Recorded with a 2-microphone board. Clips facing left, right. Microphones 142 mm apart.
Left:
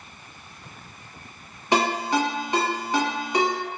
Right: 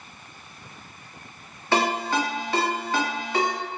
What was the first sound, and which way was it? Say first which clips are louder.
A ringtone: left 1 dB; 15° left (ahead or behind).